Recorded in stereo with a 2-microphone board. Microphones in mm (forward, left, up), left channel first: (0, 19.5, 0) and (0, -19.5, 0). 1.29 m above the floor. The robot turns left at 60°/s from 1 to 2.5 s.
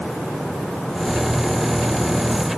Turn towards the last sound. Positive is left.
No sound to turn to.